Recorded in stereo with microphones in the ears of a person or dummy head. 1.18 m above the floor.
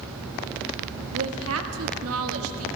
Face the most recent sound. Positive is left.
turn(degrees=-75)  # may be behind; listen again after turning